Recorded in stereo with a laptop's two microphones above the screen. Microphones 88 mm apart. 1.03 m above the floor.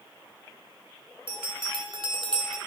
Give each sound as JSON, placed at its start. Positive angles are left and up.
{"t": 1.3, "sound": "a bell", "side_deg": -60, "distance_m": 1.5}